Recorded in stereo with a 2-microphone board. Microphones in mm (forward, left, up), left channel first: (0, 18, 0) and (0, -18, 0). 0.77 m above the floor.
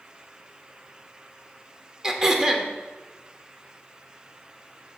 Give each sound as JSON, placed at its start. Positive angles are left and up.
{"t": 2.0, "sound": "throat clearing", "side_deg": -15, "distance_m": 0.8}